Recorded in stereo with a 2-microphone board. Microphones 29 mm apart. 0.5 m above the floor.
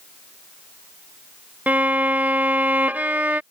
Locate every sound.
1.7 s a violin: 85° right